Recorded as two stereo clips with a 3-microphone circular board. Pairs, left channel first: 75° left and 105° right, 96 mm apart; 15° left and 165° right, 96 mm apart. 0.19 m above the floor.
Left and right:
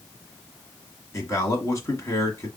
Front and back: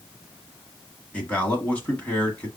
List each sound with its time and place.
1.1 s a man speaking: 80° left, 1.3 m